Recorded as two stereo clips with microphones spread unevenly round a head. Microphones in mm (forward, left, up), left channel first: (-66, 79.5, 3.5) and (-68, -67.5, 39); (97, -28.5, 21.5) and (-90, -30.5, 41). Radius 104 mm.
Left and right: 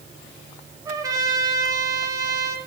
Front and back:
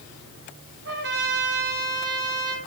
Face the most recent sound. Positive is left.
turn(degrees=-155)